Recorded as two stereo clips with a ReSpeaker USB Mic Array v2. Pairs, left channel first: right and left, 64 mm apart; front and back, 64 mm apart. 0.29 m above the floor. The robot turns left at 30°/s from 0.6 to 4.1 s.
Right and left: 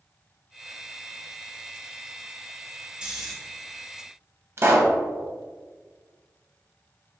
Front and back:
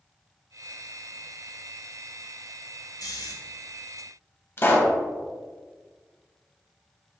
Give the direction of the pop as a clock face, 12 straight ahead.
10 o'clock.